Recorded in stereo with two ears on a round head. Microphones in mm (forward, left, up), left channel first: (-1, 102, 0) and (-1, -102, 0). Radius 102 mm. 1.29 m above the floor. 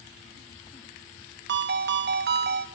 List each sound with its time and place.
1.5 s a ringtone: 50° right (ahead or behind), 1.4 m